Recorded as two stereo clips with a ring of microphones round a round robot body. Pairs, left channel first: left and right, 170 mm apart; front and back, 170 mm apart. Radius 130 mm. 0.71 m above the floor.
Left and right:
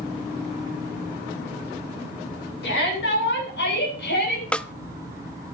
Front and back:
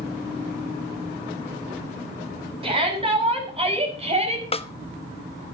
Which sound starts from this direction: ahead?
A snare drum, at 4.5 s.